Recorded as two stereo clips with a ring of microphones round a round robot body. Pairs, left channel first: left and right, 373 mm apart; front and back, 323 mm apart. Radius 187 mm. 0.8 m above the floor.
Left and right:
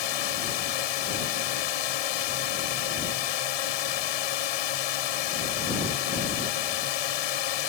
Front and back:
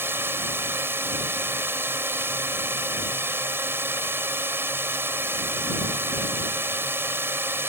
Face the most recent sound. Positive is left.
turn(degrees=95)